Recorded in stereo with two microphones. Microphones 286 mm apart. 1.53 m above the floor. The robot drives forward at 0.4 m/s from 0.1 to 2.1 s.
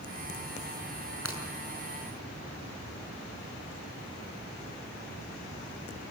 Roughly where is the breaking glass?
Left.